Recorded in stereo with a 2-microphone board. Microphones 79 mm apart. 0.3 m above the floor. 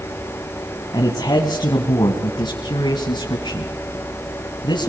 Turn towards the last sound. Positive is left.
turn(degrees=70)  # may be behind; listen again after turning